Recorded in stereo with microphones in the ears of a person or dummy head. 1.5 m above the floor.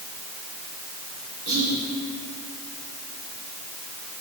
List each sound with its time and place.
1.5 s whispering: 85° right, 5 m